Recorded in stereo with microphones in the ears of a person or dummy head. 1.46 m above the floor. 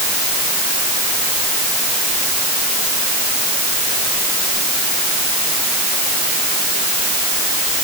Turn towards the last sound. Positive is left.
No sound to turn to.